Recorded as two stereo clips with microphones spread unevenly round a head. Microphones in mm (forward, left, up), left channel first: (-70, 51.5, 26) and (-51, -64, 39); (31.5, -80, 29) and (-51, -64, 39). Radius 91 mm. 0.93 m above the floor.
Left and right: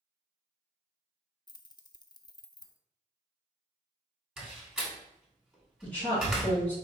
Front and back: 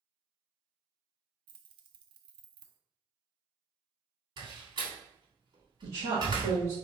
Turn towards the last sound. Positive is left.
turn(degrees=175)